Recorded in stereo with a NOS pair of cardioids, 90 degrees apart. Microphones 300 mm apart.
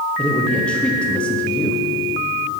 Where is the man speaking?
5° left, 1.1 m.